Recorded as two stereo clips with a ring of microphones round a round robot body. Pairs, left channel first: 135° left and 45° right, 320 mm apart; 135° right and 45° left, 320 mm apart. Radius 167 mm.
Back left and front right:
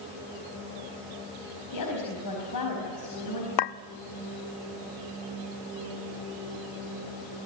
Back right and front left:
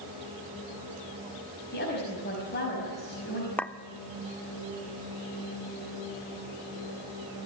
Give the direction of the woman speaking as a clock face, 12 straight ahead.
7 o'clock.